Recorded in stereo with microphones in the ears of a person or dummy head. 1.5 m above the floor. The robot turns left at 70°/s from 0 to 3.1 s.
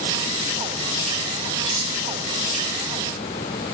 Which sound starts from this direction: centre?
Cutlery clinking, at 1.6 s.